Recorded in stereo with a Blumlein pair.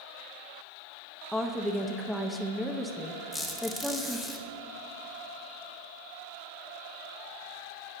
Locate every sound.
1.3 s a woman speaking: straight ahead, 0.5 m
3.3 s a squeak: 10° left, 1.1 m